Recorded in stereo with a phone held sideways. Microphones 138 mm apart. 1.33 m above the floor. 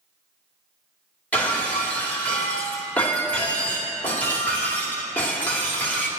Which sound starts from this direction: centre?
Breaking glass, at 1.3 s.